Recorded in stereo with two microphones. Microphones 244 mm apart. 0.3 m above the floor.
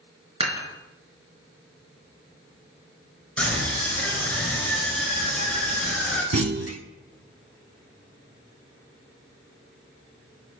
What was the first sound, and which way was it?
Dishes clattering, 25° right (ahead or behind).